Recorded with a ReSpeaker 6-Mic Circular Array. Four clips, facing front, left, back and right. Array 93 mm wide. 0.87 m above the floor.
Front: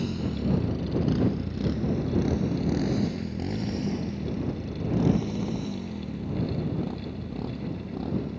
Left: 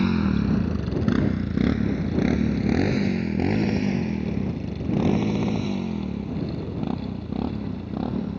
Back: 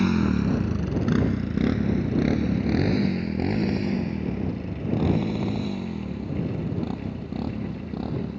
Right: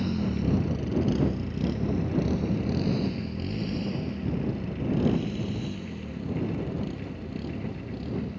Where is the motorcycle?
135° left; by 8.4 s 100° left.